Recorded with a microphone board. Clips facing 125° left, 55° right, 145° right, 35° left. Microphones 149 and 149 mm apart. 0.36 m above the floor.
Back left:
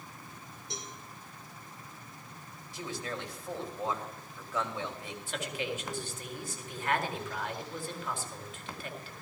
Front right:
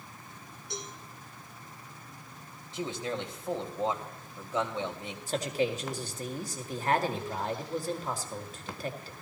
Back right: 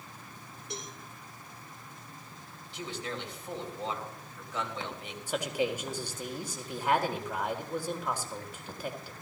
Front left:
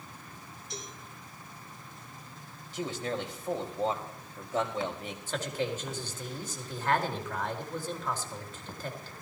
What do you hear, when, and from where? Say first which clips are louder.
0.7 s a cowbell: front right 4 dB, back right 2 dB; 170° right, 4 m
2.7 s a man speaking: front right 5 dB, front left 5 dB; 5° left, 2 m
5.3 s a man speaking: front right 7 dB, back right 3 dB; 75° right, 1.7 m